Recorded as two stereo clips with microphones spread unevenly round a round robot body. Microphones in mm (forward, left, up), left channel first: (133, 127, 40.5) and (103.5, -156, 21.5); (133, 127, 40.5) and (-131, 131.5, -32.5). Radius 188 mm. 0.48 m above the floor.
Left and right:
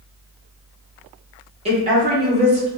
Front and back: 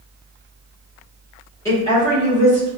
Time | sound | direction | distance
1.6 | a woman speaking | 105° right | 0.9 m